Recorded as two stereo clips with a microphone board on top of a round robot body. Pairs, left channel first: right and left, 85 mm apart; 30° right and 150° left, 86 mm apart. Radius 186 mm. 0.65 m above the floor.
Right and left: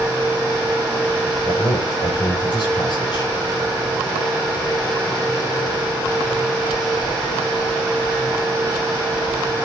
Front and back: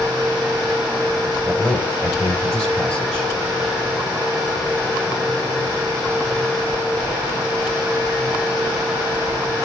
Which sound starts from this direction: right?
A man speaking, at 1.4 s.